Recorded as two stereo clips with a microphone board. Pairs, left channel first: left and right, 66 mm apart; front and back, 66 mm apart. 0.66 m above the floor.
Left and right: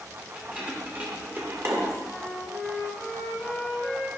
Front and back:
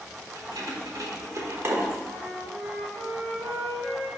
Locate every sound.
0.3 s keys jangling: 160° right, 1.8 m; by 1.9 s 115° right, 0.9 m
2.0 s a flute: straight behind, 2.5 m